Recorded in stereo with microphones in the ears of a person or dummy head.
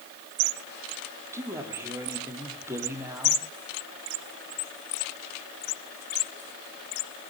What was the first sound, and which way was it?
A man speaking, 15° right (ahead or behind).